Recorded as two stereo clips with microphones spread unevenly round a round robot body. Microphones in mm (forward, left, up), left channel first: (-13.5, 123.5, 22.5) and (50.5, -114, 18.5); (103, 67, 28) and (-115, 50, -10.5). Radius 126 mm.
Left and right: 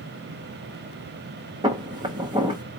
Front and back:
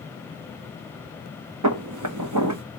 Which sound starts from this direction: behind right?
Footsteps, at 1.6 s.